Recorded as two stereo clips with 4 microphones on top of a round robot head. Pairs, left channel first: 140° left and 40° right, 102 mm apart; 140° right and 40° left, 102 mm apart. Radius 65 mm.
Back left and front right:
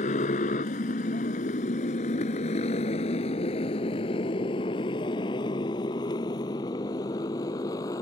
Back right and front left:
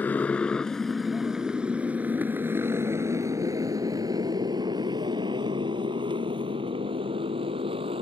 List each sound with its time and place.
0.0 s a motorcycle: 145° left; by 8.0 s 80° left